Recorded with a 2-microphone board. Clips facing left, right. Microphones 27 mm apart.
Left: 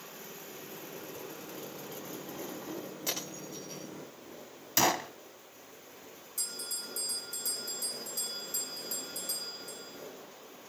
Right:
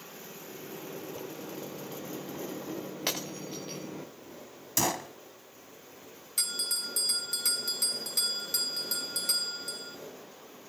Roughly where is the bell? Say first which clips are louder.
Right 8 dB; right.